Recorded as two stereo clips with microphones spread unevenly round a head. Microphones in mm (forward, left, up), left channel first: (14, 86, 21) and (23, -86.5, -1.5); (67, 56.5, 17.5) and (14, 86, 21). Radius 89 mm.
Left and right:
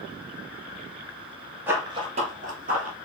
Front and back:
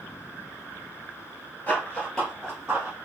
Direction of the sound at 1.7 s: 5° right.